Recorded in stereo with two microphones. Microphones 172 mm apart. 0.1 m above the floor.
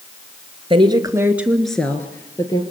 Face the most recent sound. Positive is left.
turn(degrees=20)  # may be behind; listen again after turning